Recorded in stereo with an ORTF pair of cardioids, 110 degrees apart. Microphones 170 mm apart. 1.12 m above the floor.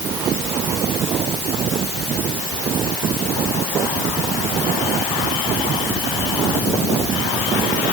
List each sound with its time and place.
Only background noise.